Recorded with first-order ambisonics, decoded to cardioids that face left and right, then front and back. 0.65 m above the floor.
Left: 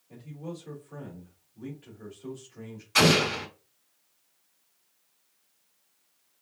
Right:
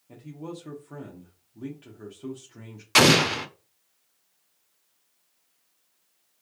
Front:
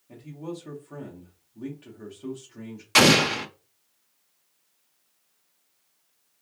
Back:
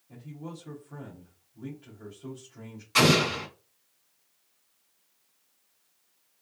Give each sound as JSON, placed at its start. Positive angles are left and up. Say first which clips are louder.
{"t": 0.1, "sound": "a man speaking", "louder": "right 2 dB, front 6 dB", "azimuth_deg": -60, "distance_m": 1.1}
{"t": 3.0, "sound": "an explosion", "louder": "right 4 dB, front 4 dB", "azimuth_deg": -50, "distance_m": 0.7}